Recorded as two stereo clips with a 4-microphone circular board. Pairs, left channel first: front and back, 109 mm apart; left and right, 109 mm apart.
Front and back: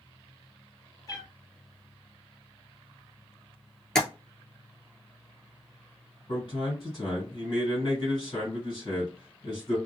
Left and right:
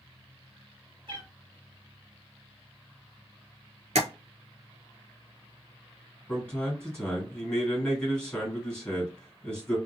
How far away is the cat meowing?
About 1.0 m.